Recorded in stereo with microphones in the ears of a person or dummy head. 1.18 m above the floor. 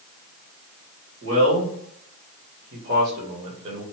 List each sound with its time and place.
1.2 s a man speaking: 70° right (ahead or behind), 1.9 m; by 3.8 s 20° right (ahead or behind), 1.1 m